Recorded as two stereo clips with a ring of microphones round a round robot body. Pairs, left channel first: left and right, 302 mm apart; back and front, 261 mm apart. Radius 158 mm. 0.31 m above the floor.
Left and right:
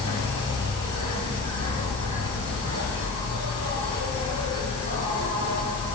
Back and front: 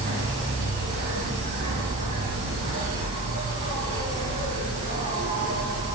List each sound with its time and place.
0.0 s an insect: 50° right, 9 m